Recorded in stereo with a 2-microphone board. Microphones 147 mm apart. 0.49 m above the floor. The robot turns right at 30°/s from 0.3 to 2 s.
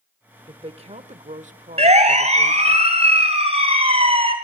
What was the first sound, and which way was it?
A woman speaking, 135° right.